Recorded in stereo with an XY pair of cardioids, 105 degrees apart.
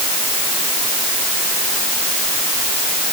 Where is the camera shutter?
No camera shutter in this recording.